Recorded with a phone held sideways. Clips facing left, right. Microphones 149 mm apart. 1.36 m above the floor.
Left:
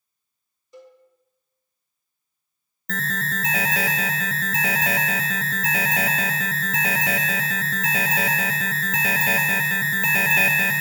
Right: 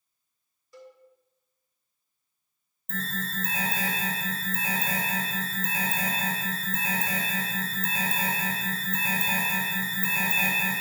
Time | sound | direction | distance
0.7 | a cowbell | 20° left (ahead or behind) | 1.4 m
2.9 | an alarm | 80° left | 0.5 m